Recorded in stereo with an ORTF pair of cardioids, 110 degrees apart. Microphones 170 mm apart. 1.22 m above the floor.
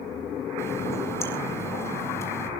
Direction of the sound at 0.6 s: 15° left.